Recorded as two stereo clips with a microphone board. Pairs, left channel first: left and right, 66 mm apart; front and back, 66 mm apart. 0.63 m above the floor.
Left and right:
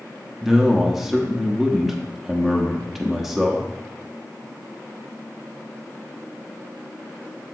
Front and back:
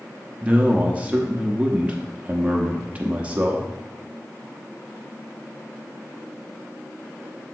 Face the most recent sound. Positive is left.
turn(degrees=-170)